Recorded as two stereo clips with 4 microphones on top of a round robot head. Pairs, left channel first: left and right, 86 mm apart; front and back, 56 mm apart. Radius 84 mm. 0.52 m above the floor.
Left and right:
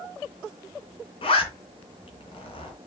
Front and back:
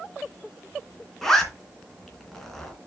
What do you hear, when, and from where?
1.2 s a zipper: 85° left, 2.5 m